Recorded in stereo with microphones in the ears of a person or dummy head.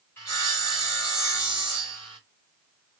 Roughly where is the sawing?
Centre.